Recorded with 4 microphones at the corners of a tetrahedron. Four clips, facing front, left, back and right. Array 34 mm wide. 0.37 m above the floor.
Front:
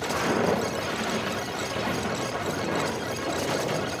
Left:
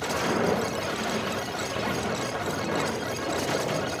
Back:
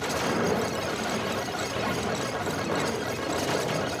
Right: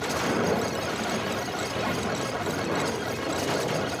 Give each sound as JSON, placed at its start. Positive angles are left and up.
{"t": 0.1, "sound": "footsteps", "azimuth_deg": -5, "distance_m": 2.0}